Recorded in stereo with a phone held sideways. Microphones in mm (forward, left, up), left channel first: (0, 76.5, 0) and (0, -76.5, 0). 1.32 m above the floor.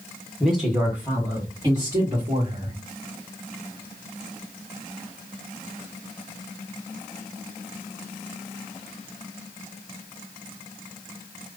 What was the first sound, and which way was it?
A woman speaking, centre (ahead or behind).